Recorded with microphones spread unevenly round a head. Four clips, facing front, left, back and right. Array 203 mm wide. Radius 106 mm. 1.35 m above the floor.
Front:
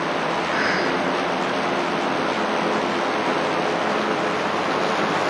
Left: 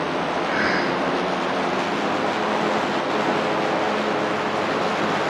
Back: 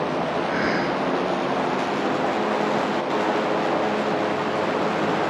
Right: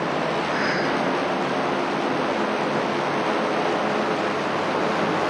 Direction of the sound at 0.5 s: 145° left.